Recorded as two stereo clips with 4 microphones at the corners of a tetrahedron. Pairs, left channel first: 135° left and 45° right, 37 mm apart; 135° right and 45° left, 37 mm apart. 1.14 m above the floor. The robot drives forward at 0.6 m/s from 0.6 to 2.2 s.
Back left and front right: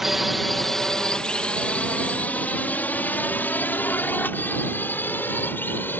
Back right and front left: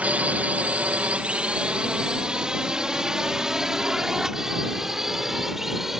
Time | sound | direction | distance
0.0 | a drone | 35° left | ?